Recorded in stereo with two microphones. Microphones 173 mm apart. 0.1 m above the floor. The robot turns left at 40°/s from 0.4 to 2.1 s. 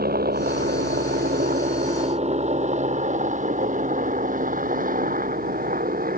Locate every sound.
0.0 s a helicopter: 65° right (ahead or behind); by 6.2 s 55° right (ahead or behind)